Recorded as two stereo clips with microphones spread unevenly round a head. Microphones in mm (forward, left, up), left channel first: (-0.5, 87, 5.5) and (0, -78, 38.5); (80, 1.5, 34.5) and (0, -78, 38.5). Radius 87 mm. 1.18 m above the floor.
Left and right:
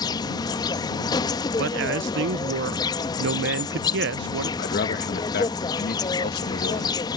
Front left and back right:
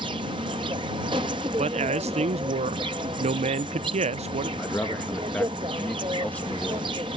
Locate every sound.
0.0 s an insect: 160° left
1.6 s a man speaking: 110° right
4.6 s a man speaking: 125° left